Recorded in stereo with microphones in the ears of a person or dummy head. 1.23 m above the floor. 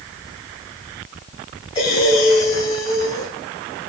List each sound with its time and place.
1.8 s breathing: 30° left (ahead or behind), 1.7 m